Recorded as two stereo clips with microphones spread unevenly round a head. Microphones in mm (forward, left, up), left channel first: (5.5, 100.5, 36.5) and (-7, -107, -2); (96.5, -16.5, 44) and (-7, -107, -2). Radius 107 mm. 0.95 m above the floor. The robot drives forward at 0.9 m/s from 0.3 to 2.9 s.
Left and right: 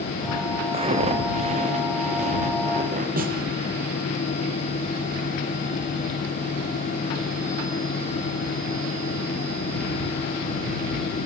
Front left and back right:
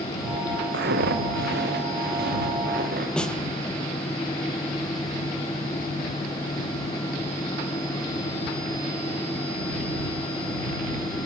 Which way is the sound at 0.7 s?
160° right.